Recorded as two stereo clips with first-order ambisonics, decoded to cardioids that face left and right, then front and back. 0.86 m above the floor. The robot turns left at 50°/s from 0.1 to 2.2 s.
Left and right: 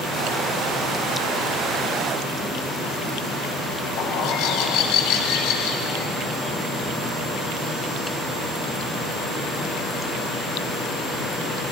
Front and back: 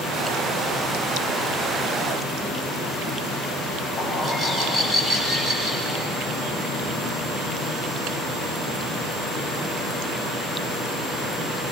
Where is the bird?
100° left, 2.5 m.